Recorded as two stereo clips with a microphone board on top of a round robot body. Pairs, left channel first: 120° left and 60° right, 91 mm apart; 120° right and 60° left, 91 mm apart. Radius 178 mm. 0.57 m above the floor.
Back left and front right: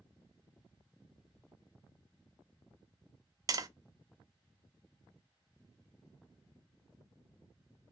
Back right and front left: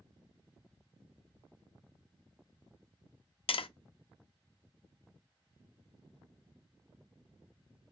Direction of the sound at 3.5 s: 110° right.